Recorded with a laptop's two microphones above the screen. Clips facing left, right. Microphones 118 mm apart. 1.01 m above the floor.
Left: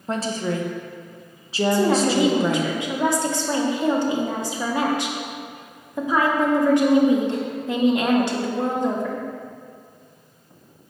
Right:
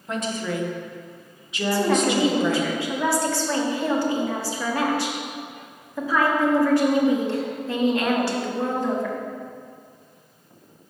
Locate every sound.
0.1 s a woman speaking: 35° left (ahead or behind), 0.6 m
1.7 s a woman speaking: 20° left (ahead or behind), 0.9 m